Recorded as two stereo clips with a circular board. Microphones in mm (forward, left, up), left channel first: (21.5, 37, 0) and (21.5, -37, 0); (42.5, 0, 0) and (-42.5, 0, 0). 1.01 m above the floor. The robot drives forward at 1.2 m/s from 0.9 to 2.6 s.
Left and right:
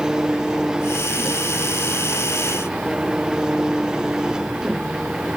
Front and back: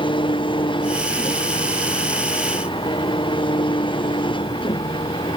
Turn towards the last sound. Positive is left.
turn(degrees=-10)